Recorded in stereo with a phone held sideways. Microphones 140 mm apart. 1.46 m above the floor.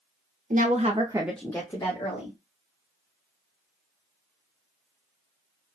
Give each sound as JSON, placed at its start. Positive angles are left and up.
{"t": 0.5, "sound": "a woman speaking", "side_deg": -70, "distance_m": 0.9}